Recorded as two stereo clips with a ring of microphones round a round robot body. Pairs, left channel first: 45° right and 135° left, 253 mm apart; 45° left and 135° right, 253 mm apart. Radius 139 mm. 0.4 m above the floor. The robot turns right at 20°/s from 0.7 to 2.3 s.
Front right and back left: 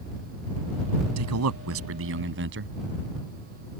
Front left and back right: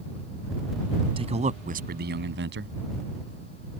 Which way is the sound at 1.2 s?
155° left.